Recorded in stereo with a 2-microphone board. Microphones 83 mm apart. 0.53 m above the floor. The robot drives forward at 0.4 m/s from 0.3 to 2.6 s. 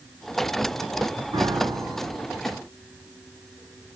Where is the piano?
75° right (ahead or behind), 3 m; by 2.3 s 70° right (ahead or behind), 3 m.